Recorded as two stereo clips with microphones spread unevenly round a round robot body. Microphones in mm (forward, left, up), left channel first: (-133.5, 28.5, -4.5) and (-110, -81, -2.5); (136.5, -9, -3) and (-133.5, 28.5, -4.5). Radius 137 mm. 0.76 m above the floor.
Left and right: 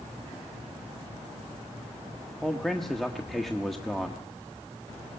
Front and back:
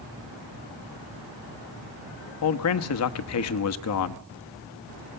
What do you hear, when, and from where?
2.4 s a man speaking: 15° left, 0.9 m